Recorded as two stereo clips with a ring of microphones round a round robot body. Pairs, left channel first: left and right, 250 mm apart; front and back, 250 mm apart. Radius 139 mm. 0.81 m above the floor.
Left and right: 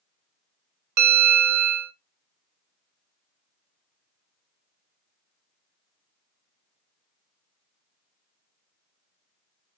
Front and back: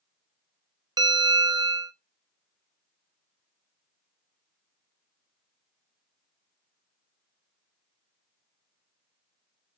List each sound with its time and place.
1.0 s a bell: 105° right, 0.5 m